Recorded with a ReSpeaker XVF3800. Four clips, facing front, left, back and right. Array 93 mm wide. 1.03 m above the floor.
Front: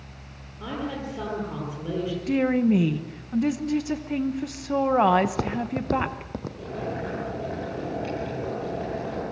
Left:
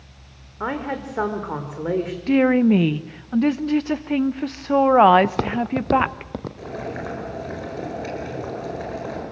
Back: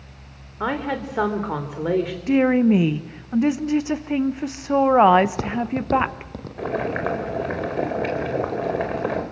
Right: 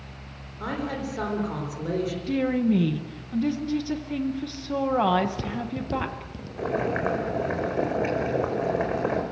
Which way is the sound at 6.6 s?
150° right.